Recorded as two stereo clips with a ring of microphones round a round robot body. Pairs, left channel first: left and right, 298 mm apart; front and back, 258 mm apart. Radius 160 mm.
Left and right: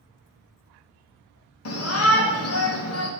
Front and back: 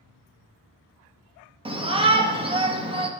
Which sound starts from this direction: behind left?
A shout, at 1.6 s.